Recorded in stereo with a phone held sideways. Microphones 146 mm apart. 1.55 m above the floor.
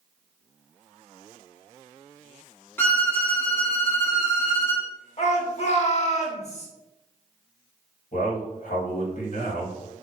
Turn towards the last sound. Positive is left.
turn(degrees=65)  # may be behind; listen again after turning